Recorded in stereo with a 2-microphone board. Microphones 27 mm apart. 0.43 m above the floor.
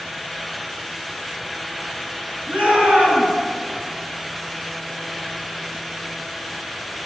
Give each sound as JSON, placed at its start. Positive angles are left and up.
{"t": 2.5, "sound": "a shout", "side_deg": -60, "distance_m": 5.5}